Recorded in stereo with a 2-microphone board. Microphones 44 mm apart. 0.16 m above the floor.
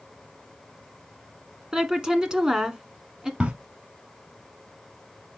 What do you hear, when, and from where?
1.7 s a woman speaking: 15° right (ahead or behind), 1.3 m
3.4 s a crack: 25° right (ahead or behind), 1.3 m